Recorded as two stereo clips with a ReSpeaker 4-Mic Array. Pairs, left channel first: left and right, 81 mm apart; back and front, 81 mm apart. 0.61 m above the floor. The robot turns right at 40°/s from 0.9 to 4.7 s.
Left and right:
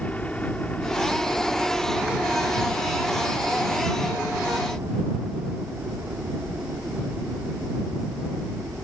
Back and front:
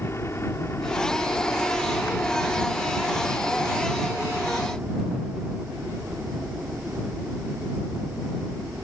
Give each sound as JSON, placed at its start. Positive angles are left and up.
{"t": 0.0, "sound": "a helicopter", "azimuth_deg": 150}